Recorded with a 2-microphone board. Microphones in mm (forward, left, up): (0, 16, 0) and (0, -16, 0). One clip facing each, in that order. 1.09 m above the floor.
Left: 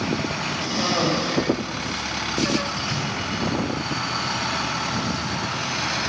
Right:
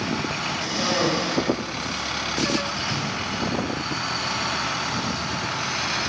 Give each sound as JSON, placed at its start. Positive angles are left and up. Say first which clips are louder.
{"t": 0.6, "sound": "a cough", "louder": "left 1 dB", "side_deg": 5, "distance_m": 6.0}
{"t": 2.8, "sound": "breathing", "louder": "even", "side_deg": -30, "distance_m": 6.0}